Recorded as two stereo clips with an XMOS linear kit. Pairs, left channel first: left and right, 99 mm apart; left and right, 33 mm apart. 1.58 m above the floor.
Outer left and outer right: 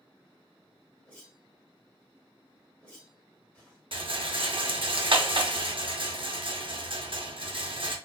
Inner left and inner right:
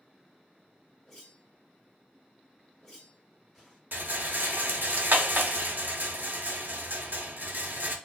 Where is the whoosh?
10° left (ahead or behind), 1.6 m.